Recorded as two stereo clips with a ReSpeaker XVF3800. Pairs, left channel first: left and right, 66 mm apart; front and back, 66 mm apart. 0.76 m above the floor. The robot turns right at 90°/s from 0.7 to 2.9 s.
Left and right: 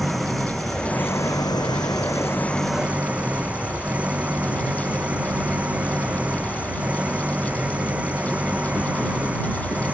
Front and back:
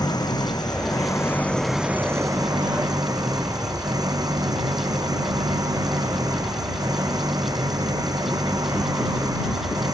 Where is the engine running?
Straight ahead; by 9.9 s 160° right.